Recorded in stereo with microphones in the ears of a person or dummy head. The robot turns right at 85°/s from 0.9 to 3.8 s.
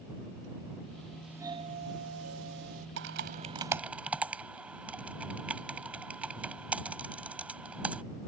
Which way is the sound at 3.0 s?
70° right (ahead or behind).